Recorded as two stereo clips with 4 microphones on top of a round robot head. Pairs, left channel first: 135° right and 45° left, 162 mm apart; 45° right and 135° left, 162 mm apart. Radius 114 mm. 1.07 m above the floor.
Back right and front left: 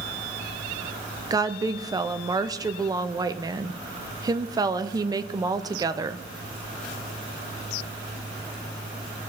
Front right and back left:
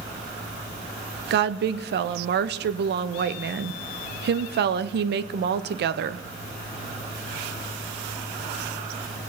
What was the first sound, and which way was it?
A woman speaking, 115° left.